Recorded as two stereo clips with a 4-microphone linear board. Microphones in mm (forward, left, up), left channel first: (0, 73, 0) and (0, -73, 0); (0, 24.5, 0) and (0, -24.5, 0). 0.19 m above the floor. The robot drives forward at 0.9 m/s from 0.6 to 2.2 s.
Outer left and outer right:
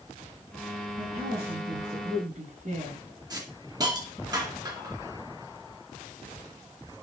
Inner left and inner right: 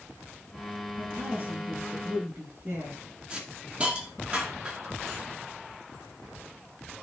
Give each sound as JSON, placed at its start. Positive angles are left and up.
{"t": 1.0, "sound": "a woman speaking", "side_deg": -50, "distance_m": 7.0}
{"t": 3.3, "sound": "a hiss", "side_deg": -25, "distance_m": 2.0}